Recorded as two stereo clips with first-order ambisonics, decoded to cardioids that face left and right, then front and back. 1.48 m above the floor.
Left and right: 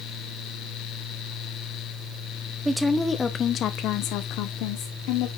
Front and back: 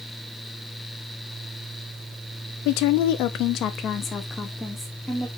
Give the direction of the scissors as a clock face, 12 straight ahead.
No scissors in this recording.